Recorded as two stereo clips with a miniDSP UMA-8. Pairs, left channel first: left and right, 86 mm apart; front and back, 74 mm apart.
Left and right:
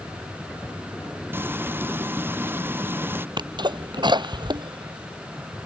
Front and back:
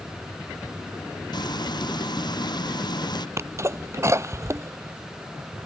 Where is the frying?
25° right.